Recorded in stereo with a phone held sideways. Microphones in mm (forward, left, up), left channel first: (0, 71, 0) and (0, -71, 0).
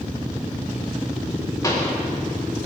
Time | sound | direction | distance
1.6 | a pop | 20° left (ahead or behind) | 3.5 m